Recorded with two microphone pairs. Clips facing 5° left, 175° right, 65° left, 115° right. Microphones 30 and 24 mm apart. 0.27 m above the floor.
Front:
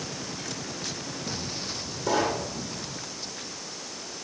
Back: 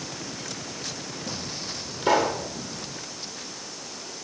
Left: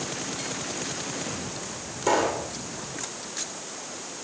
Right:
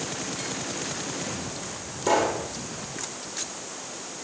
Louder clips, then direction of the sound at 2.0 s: Back 4 dB, even; 145° left.